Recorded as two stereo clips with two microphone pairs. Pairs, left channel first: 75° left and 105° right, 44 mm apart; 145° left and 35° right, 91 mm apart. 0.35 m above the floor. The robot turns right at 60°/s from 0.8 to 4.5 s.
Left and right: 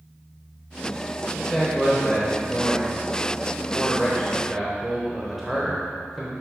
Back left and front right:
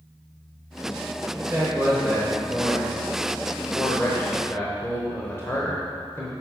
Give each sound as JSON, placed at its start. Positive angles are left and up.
{"t": 1.4, "sound": "a man speaking", "azimuth_deg": -20, "distance_m": 0.9}